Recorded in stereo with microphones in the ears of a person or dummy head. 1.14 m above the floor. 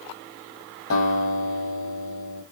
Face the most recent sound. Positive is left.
turn(degrees=80)